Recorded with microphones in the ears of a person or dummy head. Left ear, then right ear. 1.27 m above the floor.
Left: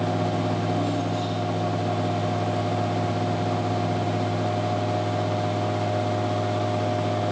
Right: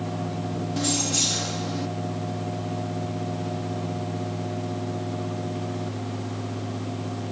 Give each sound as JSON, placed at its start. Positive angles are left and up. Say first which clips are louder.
{"t": 0.8, "sound": "keys jangling", "louder": "right 1 dB", "side_deg": -65}